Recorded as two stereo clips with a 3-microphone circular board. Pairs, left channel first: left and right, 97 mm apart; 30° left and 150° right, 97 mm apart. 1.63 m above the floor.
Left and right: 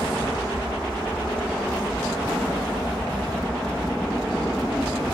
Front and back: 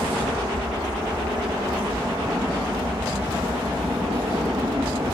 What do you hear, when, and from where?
0.0 s an aircraft: 175° right; by 5.2 s 175° left